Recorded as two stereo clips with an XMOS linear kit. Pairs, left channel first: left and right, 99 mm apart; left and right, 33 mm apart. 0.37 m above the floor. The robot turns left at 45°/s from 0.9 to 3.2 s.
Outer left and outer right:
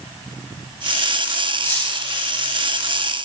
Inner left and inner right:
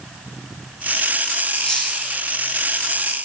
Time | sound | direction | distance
1.6 | cutlery clinking | 25° left (ahead or behind) | 2.5 m